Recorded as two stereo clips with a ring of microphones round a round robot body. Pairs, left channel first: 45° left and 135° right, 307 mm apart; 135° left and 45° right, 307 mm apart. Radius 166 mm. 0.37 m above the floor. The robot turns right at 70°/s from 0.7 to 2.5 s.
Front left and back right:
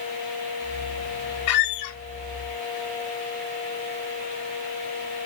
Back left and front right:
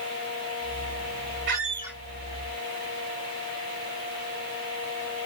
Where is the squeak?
10° left, 1.0 m; by 2.0 s 45° left, 1.0 m.